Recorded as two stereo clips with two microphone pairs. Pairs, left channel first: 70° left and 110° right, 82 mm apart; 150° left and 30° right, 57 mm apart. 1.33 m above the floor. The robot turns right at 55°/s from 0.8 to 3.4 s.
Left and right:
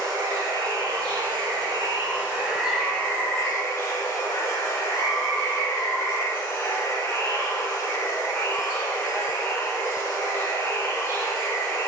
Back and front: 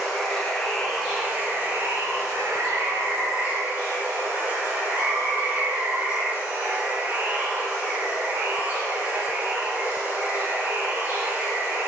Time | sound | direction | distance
0.0 | running water | 125° right | 1.7 m